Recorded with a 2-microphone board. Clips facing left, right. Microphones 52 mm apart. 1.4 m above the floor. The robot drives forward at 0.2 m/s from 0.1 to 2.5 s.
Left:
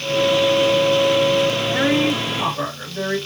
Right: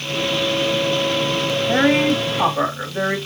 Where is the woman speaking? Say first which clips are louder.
Right 2 dB; 70° right (ahead or behind), 2.5 m; by 3.2 s 65° right (ahead or behind), 2.5 m.